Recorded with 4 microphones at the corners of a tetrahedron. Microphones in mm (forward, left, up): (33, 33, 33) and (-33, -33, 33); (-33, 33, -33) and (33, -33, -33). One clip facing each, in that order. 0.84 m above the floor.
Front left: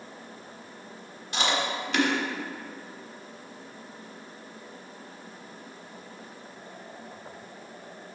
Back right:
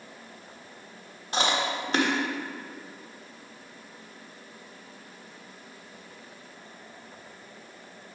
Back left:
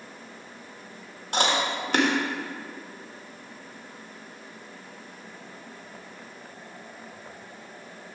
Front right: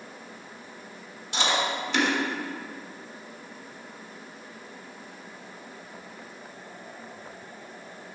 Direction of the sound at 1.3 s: 175° left.